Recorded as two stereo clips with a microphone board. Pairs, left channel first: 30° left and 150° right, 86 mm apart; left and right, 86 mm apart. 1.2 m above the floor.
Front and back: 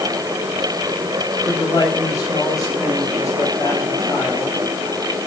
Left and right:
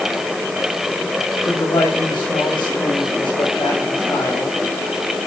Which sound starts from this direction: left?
A man speaking, at 1.4 s.